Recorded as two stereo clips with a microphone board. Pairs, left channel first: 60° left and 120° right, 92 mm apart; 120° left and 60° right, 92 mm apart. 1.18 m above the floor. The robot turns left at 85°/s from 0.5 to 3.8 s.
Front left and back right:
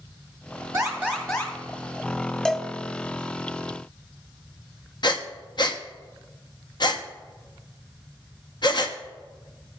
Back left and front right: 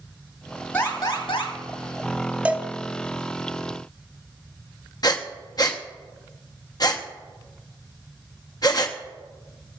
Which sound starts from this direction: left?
Breathing, at 5.0 s.